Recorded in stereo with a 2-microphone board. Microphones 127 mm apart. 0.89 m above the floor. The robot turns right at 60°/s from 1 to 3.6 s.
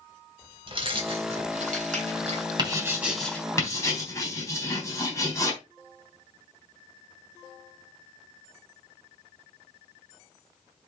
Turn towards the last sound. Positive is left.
turn(degrees=25)  # may be behind; listen again after turning